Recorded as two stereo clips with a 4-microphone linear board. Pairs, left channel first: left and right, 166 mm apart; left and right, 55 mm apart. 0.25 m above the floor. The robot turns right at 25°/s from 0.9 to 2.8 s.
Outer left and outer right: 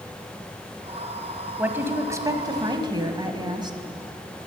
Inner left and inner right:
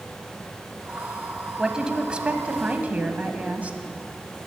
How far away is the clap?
No clap in this recording.